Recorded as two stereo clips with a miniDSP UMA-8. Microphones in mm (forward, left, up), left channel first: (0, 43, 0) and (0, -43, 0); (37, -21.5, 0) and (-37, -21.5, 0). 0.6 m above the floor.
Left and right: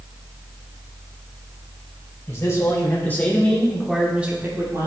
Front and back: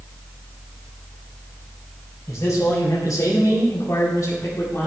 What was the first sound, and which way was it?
A man speaking, 40° left.